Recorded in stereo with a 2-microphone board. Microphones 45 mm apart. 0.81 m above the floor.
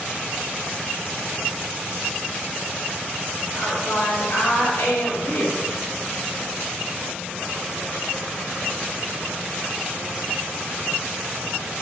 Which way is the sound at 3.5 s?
75° left (ahead or behind).